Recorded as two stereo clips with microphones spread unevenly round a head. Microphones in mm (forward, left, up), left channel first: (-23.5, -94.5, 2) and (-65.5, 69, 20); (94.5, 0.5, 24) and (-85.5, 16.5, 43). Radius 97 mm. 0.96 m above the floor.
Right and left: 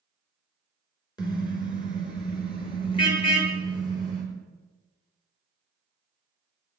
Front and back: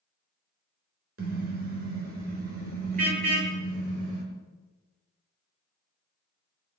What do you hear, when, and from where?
1.2 s a car horn: 145° right, 5 m; by 4.2 s 135° right, 8 m